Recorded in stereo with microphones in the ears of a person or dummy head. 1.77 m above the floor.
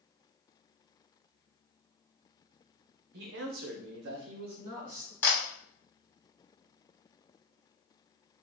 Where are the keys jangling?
I don't hear keys jangling.